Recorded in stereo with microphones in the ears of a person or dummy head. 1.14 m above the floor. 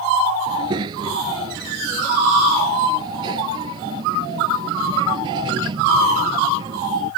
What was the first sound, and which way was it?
A child speaking, 30° right (ahead or behind).